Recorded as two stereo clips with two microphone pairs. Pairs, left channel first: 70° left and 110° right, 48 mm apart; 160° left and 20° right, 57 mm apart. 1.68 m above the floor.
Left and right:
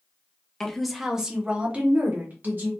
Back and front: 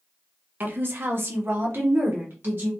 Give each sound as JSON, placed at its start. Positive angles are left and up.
{"t": 0.6, "sound": "a woman speaking", "azimuth_deg": -5, "distance_m": 0.7}